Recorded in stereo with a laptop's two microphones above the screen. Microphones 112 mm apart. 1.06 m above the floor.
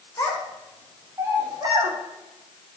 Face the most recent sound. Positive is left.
turn(degrees=-45)  # may be behind; listen again after turning